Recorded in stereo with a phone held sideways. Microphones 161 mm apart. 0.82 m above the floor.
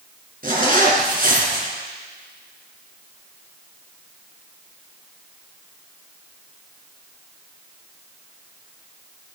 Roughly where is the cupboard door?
No cupboard door in this recording.